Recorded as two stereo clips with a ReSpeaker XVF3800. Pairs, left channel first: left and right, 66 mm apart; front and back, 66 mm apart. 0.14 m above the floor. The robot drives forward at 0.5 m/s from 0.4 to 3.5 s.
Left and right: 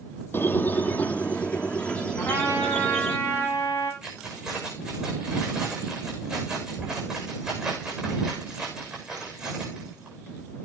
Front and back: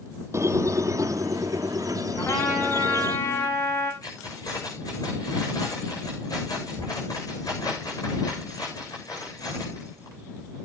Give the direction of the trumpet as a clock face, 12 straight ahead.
11 o'clock.